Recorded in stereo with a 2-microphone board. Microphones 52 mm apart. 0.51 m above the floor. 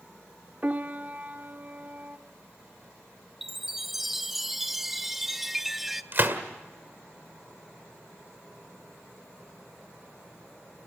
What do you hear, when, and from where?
0.6 s a piano: 35° right (ahead or behind), 0.9 m
3.4 s a chime: 5° right (ahead or behind), 0.7 m
6.1 s a gunshot: 45° right (ahead or behind), 1.8 m